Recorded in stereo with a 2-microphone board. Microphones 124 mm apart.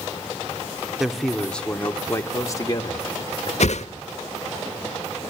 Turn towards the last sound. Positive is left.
turn(degrees=65)  # may be behind; listen again after turning